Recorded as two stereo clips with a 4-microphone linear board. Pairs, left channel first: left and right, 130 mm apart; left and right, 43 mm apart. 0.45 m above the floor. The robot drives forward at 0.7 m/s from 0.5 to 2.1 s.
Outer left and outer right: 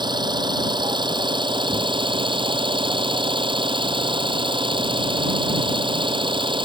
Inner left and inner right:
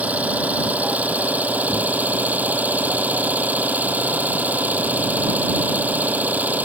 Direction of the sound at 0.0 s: 40° right (ahead or behind).